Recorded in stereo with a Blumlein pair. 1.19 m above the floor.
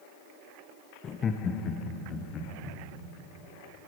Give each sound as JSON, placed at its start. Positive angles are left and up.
{"t": 1.0, "sound": "laughter", "azimuth_deg": 25, "distance_m": 0.8}